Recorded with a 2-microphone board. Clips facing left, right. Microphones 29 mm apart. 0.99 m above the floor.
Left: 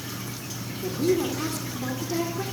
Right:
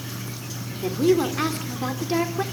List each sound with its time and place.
0.8 s a woman speaking: 45° right (ahead or behind), 2.5 m